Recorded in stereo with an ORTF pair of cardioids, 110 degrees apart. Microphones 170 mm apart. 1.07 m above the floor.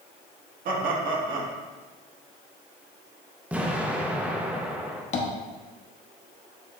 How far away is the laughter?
About 1.5 m.